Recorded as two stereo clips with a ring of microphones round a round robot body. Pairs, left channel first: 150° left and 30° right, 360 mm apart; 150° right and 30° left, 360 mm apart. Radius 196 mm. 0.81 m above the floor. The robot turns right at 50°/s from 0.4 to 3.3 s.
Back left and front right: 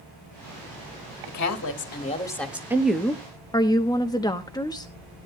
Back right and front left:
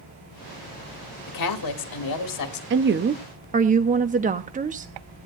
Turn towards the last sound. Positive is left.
turn(degrees=80)